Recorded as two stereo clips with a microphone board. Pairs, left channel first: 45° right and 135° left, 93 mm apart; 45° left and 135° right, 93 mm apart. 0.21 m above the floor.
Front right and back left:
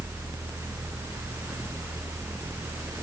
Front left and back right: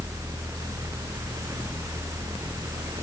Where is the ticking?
I don't hear ticking.